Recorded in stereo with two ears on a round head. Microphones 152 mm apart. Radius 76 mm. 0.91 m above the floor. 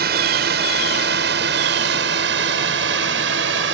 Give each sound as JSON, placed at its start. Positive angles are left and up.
{"t": 0.0, "sound": "a drone", "side_deg": -60}